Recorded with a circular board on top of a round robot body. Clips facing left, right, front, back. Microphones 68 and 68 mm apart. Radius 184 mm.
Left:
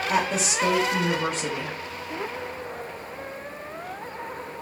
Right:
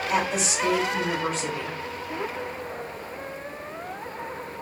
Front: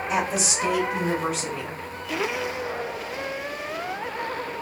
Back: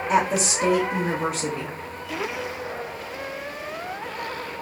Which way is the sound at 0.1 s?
135° left.